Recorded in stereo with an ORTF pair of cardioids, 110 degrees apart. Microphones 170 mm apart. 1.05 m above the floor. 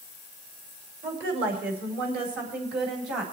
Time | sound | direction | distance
1.0 | a woman speaking | 65° right | 3.5 m